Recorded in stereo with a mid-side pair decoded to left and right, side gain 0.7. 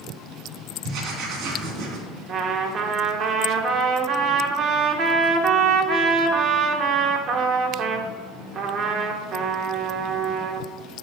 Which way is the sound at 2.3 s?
45° right.